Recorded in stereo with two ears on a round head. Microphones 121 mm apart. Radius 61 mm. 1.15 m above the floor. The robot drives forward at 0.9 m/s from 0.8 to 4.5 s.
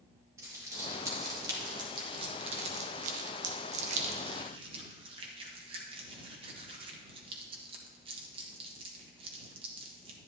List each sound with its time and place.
0.4 s crumpling: 25° right (ahead or behind), 2.5 m; by 10.2 s 40° right (ahead or behind), 1.5 m